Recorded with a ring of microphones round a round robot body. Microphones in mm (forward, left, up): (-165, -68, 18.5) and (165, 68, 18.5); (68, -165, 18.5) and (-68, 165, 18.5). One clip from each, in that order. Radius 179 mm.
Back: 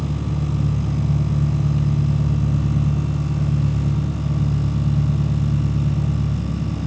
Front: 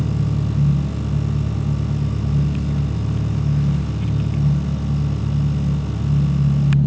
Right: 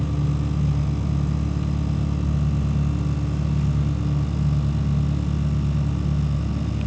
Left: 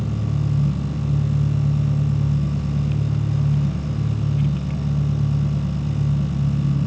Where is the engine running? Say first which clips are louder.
Front 2 dB, even; 50° left, 2.5 m.